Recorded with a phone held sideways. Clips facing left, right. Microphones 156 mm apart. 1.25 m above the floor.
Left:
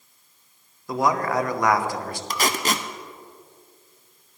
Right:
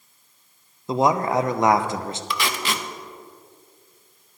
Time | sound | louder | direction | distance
0.9 | a man speaking | right 3 dB | 25° right (ahead or behind) | 0.6 m
2.3 | tape being pulled | left 3 dB | 40° left (ahead or behind) | 0.6 m